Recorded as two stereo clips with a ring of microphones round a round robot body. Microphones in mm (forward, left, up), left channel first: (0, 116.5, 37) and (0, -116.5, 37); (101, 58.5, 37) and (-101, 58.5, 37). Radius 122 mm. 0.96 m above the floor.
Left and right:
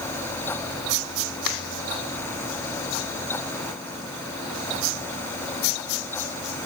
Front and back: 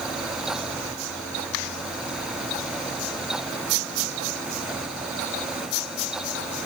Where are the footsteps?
I don't hear footsteps.